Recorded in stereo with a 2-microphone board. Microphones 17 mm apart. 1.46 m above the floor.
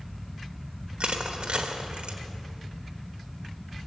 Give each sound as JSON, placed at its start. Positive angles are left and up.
{"t": 1.0, "sound": "crushing", "side_deg": -75, "distance_m": 1.5}